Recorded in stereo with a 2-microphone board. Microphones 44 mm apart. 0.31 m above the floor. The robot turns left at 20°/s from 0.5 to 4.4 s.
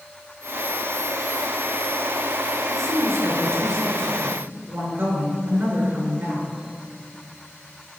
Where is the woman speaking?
85° right, 3.5 m; by 6.5 s 115° right, 3.5 m.